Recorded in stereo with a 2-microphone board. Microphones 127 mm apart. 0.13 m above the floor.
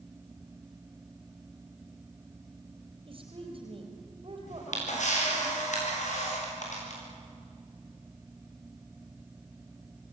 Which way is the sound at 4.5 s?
70° left (ahead or behind).